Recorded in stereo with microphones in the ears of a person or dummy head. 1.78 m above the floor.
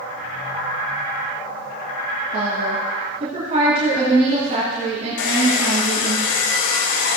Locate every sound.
2.3 s a woman speaking: 45° right (ahead or behind), 3 m
5.2 s a hair dryer: 75° left (ahead or behind), 1.2 m